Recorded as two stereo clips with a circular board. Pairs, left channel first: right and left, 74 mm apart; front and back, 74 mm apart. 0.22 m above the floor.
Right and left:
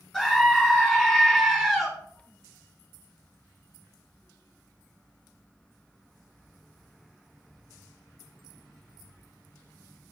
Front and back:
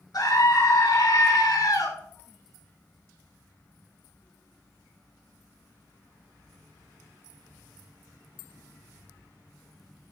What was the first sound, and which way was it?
A scream, 5° right.